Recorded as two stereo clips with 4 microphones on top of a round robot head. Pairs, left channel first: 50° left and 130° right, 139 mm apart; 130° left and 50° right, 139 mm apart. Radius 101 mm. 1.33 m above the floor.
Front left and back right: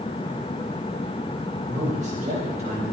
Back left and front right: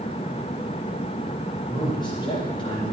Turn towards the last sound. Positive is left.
turn(degrees=-175)